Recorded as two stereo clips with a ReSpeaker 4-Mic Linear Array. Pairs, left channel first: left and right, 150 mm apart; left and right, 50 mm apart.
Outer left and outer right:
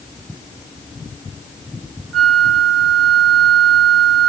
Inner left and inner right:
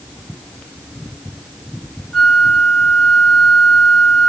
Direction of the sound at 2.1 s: Centre (ahead or behind).